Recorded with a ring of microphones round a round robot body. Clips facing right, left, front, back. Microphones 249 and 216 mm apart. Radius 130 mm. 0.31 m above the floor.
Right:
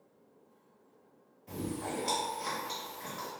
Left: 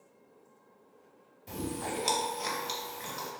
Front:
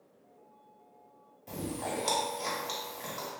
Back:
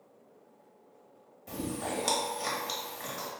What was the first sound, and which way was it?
Chewing, 90° left.